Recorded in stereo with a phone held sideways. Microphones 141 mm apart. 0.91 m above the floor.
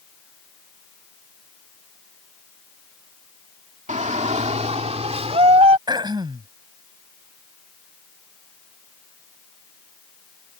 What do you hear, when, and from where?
3.9 s a shout: 55° right (ahead or behind); by 5.8 s 45° right (ahead or behind)
5.9 s throat clearing: 30° right (ahead or behind)